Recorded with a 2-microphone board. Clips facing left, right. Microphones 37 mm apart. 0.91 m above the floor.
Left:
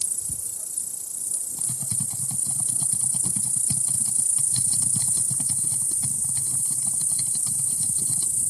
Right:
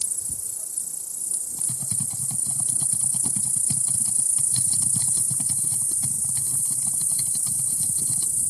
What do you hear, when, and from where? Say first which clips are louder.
0.0 s an insect: even; 45° left (ahead or behind)
1.6 s typing on a keyboard: even; 10° right (ahead or behind)